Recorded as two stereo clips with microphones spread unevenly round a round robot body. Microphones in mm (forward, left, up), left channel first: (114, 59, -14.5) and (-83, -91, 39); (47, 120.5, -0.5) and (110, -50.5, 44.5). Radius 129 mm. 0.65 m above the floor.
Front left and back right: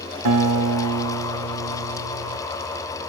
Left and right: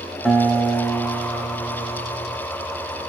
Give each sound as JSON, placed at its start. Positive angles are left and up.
{"t": 0.2, "sound": "a guitar", "azimuth_deg": -165, "distance_m": 1.5}